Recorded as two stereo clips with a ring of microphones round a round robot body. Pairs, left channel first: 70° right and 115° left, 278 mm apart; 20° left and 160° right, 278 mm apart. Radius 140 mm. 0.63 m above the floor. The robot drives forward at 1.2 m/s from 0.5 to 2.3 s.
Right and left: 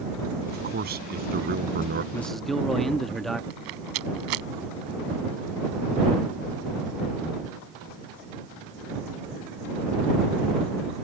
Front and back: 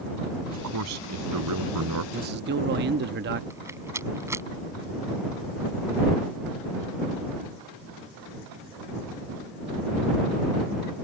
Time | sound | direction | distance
0.5 | a man speaking | 170° left | ?
2.1 | a man speaking | 130° right | ?
3.5 | a rattle | 120° left | ?